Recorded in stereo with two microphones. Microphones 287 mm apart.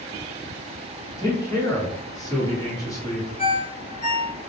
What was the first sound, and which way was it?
A man speaking, 10° left (ahead or behind).